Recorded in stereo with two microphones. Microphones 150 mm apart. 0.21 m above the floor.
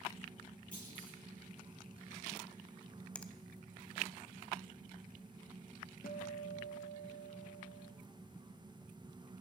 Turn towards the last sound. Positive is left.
turn(degrees=75)  # may be behind; listen again after turning